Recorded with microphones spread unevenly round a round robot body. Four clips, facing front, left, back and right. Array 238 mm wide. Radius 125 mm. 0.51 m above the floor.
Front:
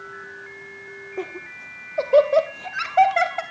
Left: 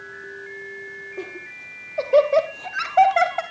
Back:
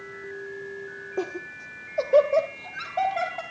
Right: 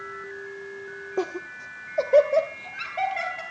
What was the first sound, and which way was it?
Laughter, 105° right.